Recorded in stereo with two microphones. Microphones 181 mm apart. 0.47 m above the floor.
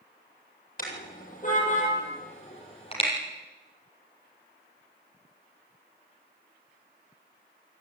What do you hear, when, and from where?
0.8 s a car horn: 45° left (ahead or behind), 7 m; by 3.1 s 30° left (ahead or behind), 6.5 m